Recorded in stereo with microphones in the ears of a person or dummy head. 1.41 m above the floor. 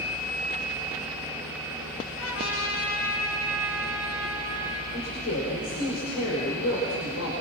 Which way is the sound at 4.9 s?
90° left.